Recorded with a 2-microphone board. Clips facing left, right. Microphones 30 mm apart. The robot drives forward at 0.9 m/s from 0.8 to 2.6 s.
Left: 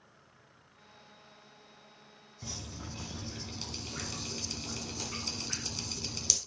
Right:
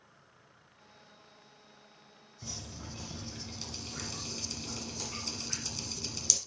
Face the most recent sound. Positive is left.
turn(degrees=15)  # may be behind; listen again after turning